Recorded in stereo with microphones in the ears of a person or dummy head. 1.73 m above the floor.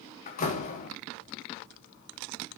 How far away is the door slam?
About 3 m.